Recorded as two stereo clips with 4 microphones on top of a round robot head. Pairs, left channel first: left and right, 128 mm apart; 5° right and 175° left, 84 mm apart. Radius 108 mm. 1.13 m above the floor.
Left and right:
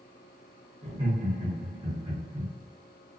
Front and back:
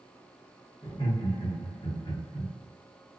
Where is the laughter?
35° right, 0.9 m.